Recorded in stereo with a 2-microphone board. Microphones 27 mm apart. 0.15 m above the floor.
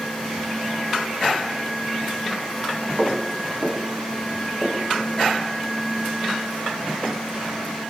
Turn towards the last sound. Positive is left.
turn(degrees=10)  # may be behind; listen again after turning